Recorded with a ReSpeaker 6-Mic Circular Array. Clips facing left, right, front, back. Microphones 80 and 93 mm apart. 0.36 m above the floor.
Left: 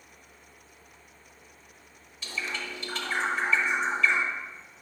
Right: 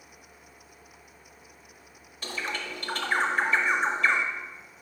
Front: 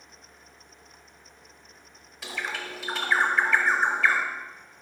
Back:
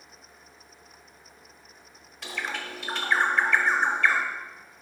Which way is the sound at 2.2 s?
85° right.